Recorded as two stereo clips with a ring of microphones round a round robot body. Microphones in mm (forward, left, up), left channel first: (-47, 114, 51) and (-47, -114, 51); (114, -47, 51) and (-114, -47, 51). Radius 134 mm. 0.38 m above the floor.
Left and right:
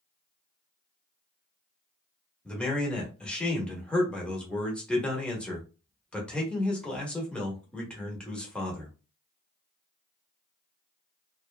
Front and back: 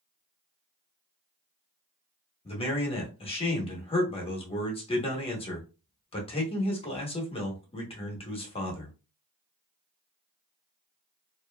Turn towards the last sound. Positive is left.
turn(degrees=10)